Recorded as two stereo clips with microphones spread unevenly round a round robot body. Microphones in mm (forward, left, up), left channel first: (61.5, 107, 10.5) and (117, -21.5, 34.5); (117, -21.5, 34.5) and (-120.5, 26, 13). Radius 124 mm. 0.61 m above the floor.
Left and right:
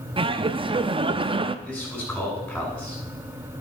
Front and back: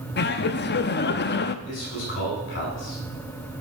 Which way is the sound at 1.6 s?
35° left.